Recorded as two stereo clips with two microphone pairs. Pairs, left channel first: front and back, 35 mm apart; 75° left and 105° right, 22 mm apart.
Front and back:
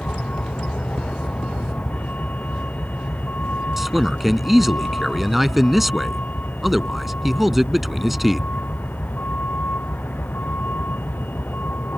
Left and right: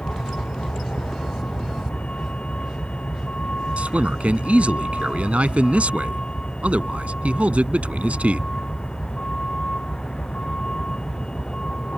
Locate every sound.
0.0 s a vehicle: 45° left; by 12.0 s 20° left
3.8 s a man speaking: 95° right